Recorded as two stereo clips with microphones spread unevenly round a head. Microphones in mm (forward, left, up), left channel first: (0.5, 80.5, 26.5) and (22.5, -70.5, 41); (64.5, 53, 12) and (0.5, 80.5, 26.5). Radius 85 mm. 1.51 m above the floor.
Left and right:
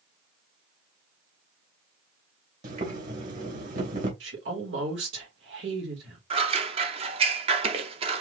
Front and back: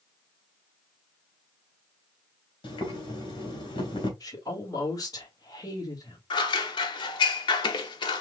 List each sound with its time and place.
2.6 s boiling: 50° right, 2.5 m
4.2 s a woman speaking: 90° right, 2 m
6.3 s scissors: 35° right, 0.8 m